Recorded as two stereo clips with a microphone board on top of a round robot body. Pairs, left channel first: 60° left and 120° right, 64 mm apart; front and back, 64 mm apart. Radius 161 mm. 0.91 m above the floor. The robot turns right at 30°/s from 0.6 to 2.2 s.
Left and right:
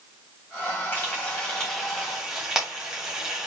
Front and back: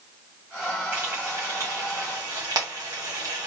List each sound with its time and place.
0.9 s frying: 120° left, 0.9 m; by 3.5 s 160° left, 0.9 m